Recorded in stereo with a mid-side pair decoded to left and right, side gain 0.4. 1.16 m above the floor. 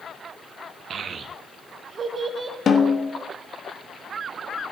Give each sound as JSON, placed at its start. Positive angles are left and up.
{"t": 0.9, "sound": "a child speaking", "azimuth_deg": -60, "distance_m": 1.0}
{"t": 2.7, "sound": "a snare drum", "azimuth_deg": 50, "distance_m": 1.4}